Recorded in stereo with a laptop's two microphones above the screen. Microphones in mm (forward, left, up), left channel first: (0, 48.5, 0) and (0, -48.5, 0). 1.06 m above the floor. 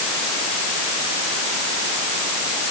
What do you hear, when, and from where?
Only background noise.